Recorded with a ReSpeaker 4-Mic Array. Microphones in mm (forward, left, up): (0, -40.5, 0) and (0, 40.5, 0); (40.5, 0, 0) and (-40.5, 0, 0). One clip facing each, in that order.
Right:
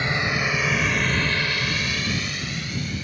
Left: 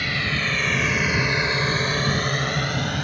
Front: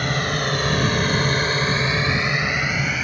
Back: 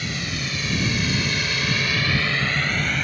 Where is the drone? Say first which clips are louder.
Right 2 dB, front 7 dB; 25° right; by 3.0 s 85° left.